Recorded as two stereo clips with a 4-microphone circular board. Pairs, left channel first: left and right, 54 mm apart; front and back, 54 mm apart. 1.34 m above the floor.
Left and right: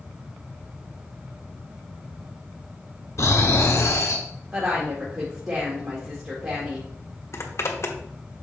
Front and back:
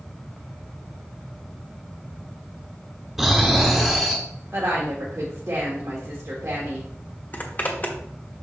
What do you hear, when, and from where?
3.2 s snoring: 95° left, 1.6 m
4.5 s a woman speaking: 140° right, 1.6 m
7.3 s a zipper: 55° left, 1.1 m